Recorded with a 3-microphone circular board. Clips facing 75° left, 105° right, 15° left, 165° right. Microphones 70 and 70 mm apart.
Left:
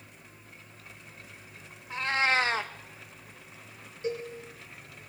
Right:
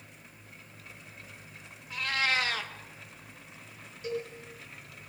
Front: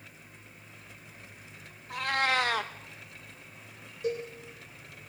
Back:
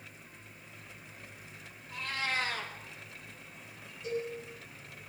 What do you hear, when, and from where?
1.9 s a cat meowing: 15° left, 0.8 m
4.0 s a cowbell: 15° left, 3.5 m